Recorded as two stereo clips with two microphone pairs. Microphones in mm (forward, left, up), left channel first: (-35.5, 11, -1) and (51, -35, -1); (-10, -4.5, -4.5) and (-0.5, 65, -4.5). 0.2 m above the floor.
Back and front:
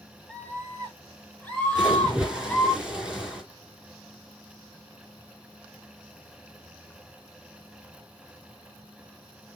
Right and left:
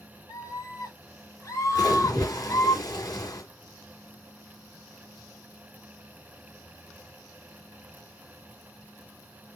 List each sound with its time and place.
0.3 s a scream: 135° right, 7.5 m; by 2.8 s 125° right, 5 m
1.8 s a splash: 110° right, 3 m